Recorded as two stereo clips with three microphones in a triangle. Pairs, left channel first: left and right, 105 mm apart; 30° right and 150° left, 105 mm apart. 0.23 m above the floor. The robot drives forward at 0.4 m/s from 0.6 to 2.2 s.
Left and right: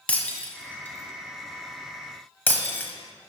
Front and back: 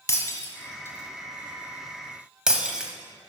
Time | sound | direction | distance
0.1 | breaking glass | 20° left | 1.0 m